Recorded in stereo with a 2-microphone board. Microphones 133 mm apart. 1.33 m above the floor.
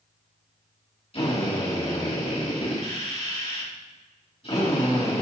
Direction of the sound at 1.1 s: 45° left (ahead or behind).